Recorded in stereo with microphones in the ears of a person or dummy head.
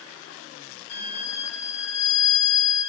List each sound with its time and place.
0.9 s a violin: 25° left (ahead or behind), 1.5 m